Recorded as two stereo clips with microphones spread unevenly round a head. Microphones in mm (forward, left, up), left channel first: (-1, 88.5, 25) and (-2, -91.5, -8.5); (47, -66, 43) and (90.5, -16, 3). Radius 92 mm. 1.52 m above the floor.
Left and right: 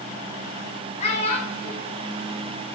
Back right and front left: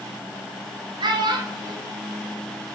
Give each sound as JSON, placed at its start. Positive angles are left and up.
{"t": 1.0, "sound": "a child speaking", "azimuth_deg": 35, "distance_m": 2.5}